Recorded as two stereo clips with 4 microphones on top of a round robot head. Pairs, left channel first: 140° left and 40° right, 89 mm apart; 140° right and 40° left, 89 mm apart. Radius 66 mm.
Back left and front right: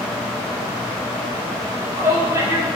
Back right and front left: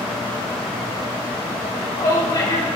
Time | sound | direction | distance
1.6 | a shout | 100° right | 7 m